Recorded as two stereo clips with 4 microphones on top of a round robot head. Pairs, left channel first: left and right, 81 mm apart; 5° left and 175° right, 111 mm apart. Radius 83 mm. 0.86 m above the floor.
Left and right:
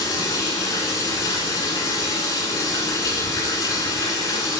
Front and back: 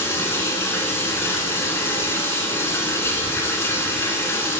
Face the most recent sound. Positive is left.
turn(degrees=65)